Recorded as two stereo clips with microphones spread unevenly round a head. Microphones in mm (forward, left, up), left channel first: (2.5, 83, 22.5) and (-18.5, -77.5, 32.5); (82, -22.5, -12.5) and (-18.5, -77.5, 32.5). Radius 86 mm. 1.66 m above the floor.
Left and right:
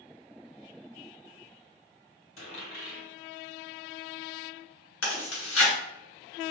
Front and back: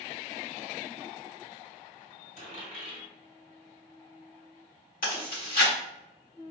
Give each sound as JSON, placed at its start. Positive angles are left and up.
{"t": 2.4, "sound": "a dropped coin", "azimuth_deg": 60, "distance_m": 1.9}
{"t": 5.0, "sound": "chewing", "azimuth_deg": 80, "distance_m": 1.5}